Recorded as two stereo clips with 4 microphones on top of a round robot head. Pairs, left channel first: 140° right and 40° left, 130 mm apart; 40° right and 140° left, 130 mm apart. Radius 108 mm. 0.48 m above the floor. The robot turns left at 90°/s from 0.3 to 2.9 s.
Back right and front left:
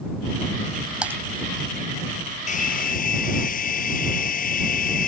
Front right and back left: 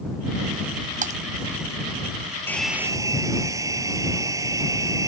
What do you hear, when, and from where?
1.0 s typing on a keyboard: 125° left; by 1.2 s 110° left
2.5 s a hair dryer: 110° right; by 5.1 s 150° right